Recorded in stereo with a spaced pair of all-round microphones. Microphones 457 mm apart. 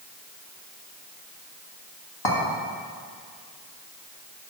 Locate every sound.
2.2 s a clink: 55° left (ahead or behind), 1.5 m